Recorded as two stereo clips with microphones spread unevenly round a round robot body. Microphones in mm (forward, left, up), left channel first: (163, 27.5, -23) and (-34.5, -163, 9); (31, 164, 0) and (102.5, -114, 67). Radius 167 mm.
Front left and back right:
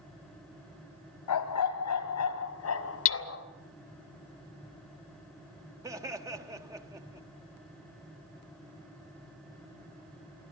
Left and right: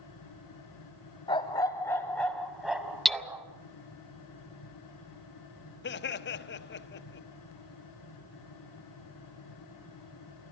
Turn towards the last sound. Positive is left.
turn(degrees=140)